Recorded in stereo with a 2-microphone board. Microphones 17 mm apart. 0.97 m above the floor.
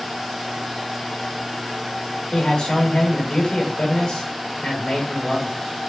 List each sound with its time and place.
2.3 s a man speaking: 60° left (ahead or behind), 4.5 m